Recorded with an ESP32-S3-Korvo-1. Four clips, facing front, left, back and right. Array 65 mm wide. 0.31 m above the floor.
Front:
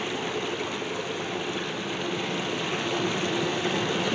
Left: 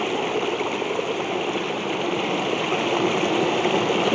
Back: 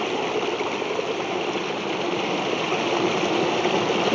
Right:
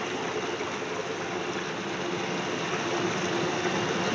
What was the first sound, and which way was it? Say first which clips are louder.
Running water: left 7 dB, back 6 dB; 130° left.